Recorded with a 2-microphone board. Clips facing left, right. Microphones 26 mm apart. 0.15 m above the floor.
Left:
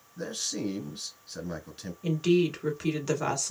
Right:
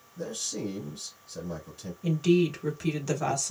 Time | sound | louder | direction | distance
0.2 | a man speaking | left 1 dB | 40° left (ahead or behind) | 1.5 m
2.0 | a woman speaking | right 1 dB | 15° left (ahead or behind) | 1.1 m